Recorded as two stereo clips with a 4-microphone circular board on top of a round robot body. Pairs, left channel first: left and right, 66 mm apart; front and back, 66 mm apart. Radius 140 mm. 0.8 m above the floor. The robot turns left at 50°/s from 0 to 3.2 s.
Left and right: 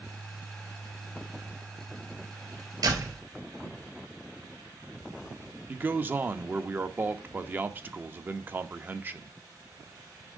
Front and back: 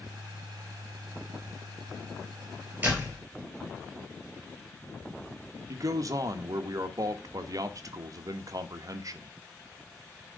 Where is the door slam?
115° right, 4 m; by 3.2 s 130° right, 4 m.